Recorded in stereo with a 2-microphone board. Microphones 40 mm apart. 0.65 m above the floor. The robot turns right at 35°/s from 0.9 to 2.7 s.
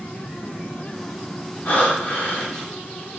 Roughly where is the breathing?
Behind left.